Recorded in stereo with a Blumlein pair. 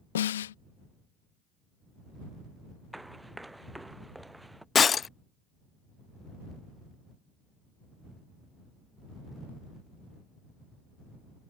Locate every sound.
0.1 s a snare drum: 60° left
2.9 s running footsteps: 5° right
4.8 s breaking glass: 20° left